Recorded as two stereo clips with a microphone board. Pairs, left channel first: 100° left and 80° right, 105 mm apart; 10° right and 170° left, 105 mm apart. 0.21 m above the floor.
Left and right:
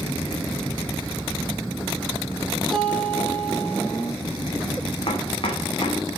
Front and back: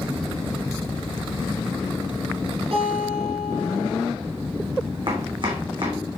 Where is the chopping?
130° left, 3 m.